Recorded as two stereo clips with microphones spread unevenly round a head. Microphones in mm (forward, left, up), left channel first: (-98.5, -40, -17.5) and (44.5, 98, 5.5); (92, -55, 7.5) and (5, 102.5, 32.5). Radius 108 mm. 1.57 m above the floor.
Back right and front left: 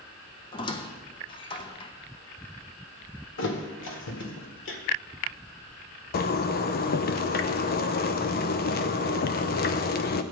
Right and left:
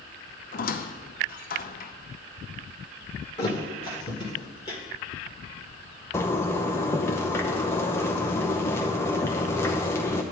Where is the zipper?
145° right, 0.6 m.